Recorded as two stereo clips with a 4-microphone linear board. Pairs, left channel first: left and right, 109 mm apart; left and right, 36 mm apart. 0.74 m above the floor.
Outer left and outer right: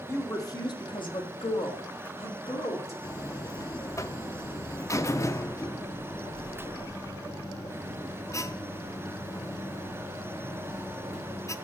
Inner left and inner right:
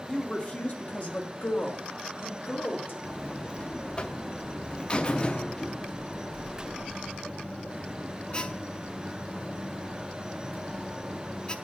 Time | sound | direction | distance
0.1 | a woman speaking | 25° left (ahead or behind) | 1.3 m
3.0 | a buzzer | 25° left (ahead or behind) | 0.5 m